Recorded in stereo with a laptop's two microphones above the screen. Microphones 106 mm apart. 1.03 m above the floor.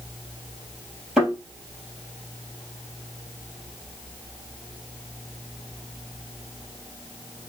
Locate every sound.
1.2 s a thud: 10° right (ahead or behind), 3.5 m